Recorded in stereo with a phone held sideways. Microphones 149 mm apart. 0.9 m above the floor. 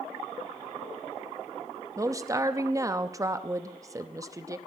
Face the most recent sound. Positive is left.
turn(degrees=-25)  # may be behind; listen again after turning